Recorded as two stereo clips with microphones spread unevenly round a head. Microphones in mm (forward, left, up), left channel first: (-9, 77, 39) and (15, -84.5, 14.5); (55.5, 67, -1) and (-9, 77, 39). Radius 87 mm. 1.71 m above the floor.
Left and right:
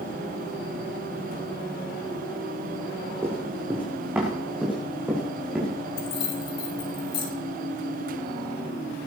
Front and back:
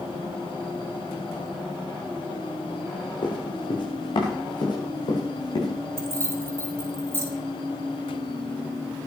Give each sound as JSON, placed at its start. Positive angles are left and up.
{"t": 3.2, "sound": "running footsteps", "azimuth_deg": 0, "distance_m": 5.0}
{"t": 6.0, "sound": "keys jangling", "azimuth_deg": 135, "distance_m": 4.5}